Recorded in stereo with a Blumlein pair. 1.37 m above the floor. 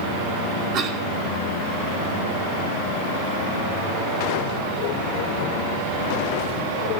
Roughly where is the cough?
Ahead right.